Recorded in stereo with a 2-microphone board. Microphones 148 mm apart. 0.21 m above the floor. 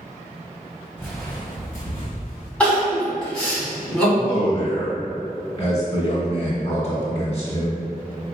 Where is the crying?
5° left (ahead or behind), 1.9 m.